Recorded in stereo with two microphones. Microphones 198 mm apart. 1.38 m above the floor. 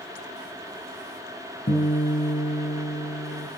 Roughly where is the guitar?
Left.